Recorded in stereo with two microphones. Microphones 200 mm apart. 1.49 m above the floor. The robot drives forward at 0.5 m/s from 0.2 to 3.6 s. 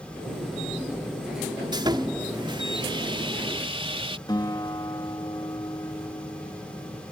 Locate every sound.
1.7 s sawing: 20° right (ahead or behind); by 4.2 s 30° right (ahead or behind)
4.3 s a guitar: 20° left (ahead or behind)